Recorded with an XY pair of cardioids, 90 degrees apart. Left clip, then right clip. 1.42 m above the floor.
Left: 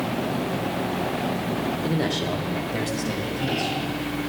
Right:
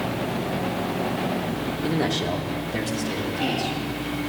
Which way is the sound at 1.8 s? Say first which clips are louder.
Right 4 dB; 5° right.